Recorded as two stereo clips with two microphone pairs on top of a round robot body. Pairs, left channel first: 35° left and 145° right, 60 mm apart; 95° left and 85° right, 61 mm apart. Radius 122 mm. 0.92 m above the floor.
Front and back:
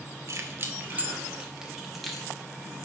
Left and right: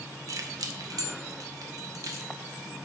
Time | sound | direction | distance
0.3 | keys jangling | 110° right | 0.8 m